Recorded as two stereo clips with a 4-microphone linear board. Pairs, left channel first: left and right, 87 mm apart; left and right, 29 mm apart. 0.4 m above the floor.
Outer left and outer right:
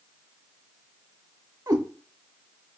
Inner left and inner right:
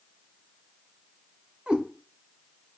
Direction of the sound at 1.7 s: 40° right (ahead or behind).